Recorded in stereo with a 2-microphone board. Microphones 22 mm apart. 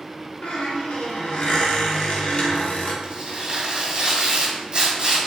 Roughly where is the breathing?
No breathing in this recording.